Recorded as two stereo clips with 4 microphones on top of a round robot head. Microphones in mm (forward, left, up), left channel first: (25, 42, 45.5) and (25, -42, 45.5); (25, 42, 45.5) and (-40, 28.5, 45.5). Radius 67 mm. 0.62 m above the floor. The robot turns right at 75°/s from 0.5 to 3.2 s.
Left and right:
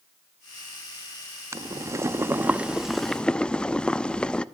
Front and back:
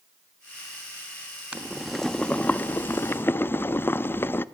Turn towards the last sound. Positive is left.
turn(degrees=20)